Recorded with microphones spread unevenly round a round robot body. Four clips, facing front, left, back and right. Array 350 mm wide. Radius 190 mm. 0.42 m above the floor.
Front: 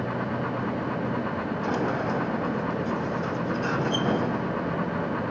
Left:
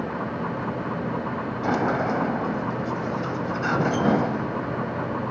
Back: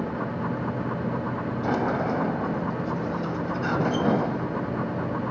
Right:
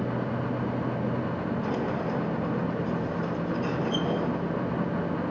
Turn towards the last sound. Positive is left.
turn(degrees=95)